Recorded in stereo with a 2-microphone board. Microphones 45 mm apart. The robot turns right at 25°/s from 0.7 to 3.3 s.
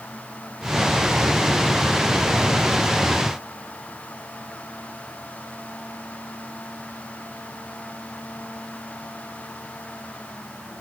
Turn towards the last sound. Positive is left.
No sound to turn to.